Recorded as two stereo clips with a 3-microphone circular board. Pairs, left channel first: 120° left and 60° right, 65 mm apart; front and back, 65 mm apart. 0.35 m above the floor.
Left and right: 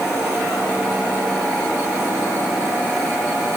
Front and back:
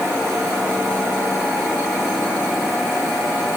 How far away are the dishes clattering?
No dishes clattering in this recording.